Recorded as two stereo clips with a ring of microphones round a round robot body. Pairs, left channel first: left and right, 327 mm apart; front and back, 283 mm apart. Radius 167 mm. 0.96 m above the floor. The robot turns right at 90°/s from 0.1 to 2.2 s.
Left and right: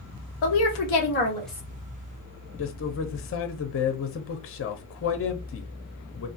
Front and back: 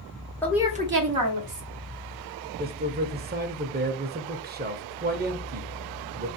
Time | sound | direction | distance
0.4 | a woman speaking | 80° left | 0.9 m
2.6 | a man speaking | 130° left | 0.6 m